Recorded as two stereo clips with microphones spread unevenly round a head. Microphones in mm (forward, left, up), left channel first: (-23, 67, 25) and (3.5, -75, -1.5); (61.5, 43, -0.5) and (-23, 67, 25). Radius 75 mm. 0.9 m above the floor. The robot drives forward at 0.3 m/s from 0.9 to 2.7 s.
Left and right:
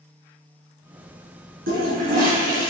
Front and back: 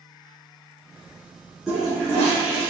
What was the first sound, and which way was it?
A toilet flushing, 110° right.